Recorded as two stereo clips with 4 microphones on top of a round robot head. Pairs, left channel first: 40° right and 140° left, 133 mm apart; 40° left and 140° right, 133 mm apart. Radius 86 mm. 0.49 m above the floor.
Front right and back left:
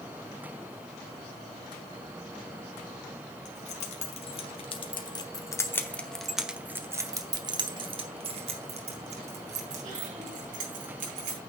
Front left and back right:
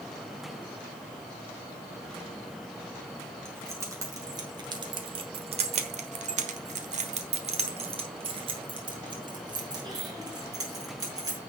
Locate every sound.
3.5 s keys jangling: 70° right, 2.5 m; by 11.4 s 160° left, 4.5 m